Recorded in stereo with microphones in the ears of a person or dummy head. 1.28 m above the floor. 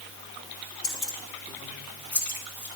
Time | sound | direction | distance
0.8 | keys jangling | 5° left (ahead or behind) | 3 m